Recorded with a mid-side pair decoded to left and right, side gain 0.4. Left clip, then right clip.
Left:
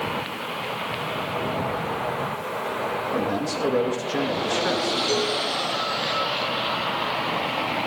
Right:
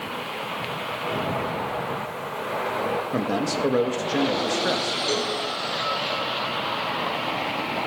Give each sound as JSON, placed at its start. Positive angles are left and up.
{"t": 3.1, "sound": "a man speaking", "azimuth_deg": -35, "distance_m": 2.5}
{"t": 5.1, "sound": "a cowbell", "azimuth_deg": -30, "distance_m": 5.0}